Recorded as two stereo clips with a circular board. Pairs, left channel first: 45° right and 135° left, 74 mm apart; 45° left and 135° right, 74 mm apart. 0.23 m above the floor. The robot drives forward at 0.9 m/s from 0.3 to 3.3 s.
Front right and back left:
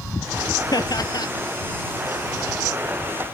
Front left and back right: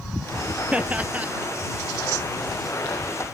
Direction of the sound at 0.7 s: 60° right.